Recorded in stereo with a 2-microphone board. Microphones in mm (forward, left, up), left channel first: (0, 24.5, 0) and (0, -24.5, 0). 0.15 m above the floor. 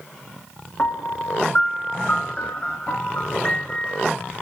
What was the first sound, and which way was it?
A piano, 30° left (ahead or behind).